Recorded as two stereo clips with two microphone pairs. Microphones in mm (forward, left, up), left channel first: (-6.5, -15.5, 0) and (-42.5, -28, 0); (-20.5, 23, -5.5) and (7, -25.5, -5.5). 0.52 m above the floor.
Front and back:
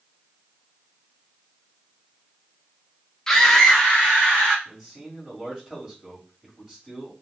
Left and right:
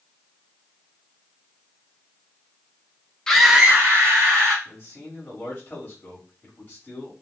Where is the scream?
65° left, 0.6 m; by 4.5 s 65° right, 1.2 m.